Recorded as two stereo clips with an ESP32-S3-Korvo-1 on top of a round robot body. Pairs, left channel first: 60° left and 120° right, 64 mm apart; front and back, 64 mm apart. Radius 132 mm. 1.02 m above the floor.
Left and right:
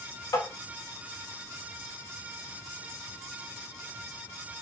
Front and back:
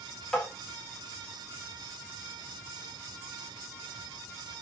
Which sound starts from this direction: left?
Tapping, at 0.3 s.